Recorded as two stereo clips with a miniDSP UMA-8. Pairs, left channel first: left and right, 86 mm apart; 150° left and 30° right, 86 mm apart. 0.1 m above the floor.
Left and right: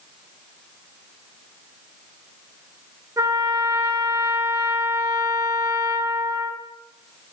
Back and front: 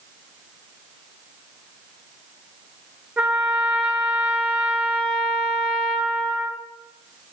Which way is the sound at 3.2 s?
95° right.